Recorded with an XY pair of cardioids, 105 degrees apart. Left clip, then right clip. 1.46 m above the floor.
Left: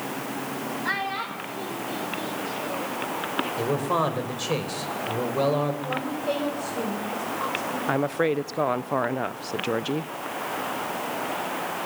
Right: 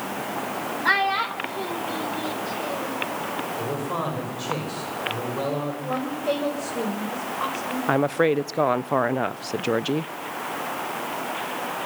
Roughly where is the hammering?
I don't hear hammering.